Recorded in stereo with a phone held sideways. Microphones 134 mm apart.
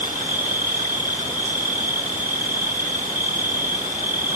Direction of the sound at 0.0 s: 80° right.